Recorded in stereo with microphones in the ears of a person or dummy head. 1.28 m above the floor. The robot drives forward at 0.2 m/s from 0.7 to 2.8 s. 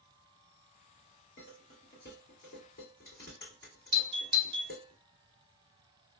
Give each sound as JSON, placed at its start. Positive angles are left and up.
{"t": 1.4, "sound": "dishes clattering", "side_deg": 50, "distance_m": 1.8}
{"t": 3.9, "sound": "a doorbell", "side_deg": -30, "distance_m": 0.5}